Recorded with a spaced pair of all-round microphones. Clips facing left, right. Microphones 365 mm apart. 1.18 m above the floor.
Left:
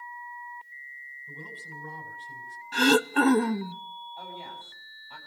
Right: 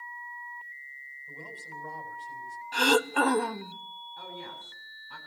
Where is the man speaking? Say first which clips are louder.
Left 1 dB; 30° left (ahead or behind), 4.5 m.